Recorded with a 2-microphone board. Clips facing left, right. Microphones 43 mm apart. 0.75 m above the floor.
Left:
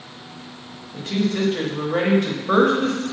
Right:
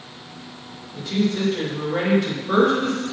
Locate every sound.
0.9 s a woman speaking: 50° left (ahead or behind), 1.5 m